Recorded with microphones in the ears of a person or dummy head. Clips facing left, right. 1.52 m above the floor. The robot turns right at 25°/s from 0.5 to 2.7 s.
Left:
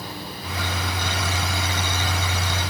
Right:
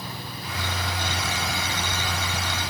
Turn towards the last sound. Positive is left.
No sound to turn to.